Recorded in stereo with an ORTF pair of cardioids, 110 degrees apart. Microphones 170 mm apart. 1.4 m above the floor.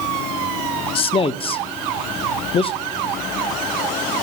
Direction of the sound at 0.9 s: 35° left.